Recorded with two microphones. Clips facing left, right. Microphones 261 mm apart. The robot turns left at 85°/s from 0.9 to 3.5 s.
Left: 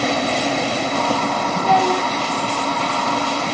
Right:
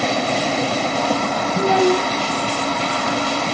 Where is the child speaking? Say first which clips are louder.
Right 5 dB; 30° right, 2 m; by 2.1 s 80° right, 2 m.